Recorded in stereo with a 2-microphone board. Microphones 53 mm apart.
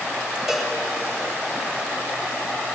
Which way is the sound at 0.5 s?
10° right (ahead or behind).